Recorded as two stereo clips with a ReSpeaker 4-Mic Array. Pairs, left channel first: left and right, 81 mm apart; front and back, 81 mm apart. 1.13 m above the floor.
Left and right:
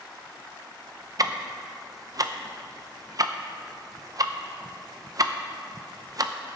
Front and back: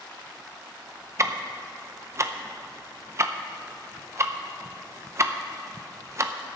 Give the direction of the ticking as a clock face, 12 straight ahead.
4 o'clock.